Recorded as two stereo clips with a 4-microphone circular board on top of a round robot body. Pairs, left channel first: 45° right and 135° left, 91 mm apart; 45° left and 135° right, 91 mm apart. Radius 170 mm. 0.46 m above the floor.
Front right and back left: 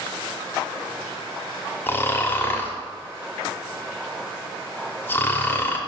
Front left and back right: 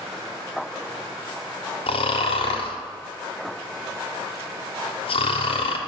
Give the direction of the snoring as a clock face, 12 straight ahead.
11 o'clock.